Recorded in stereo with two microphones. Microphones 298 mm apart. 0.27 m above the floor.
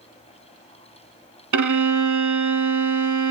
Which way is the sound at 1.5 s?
80° right.